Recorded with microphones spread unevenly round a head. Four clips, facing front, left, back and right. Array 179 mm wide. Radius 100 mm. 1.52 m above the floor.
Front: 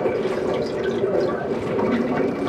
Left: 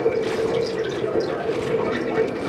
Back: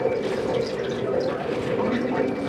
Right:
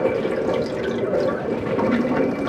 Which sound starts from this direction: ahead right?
Running water, at 0.0 s.